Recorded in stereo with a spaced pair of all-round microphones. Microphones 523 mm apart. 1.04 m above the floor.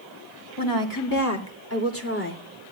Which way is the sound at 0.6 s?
40° left (ahead or behind).